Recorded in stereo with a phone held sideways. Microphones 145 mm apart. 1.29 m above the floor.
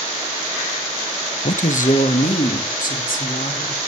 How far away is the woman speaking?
About 0.6 m.